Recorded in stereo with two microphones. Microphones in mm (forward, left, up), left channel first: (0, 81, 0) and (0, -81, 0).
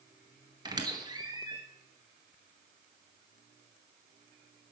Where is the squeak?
25° right (ahead or behind), 1.6 m.